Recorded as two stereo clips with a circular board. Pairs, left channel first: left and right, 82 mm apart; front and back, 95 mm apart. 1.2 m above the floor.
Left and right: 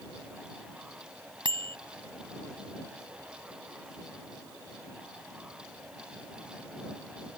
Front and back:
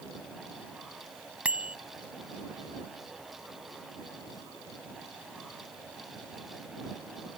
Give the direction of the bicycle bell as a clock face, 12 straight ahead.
3 o'clock.